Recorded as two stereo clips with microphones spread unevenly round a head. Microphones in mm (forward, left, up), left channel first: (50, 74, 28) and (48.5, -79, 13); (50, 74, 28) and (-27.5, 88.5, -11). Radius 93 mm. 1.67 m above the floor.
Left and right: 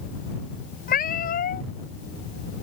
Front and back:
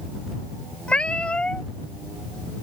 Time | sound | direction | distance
0.9 | a cat meowing | 60° left | ?